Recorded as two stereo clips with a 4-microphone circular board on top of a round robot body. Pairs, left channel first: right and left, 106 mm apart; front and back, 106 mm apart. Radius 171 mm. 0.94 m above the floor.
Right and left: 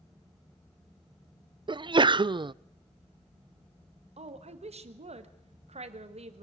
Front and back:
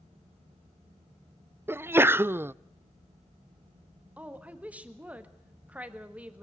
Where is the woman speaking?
100° left, 1.6 m.